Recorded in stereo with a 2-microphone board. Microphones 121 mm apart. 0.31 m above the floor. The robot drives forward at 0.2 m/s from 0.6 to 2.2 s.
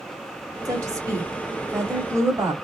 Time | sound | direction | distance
0.7 | a woman speaking | 30° right (ahead or behind) | 1.0 m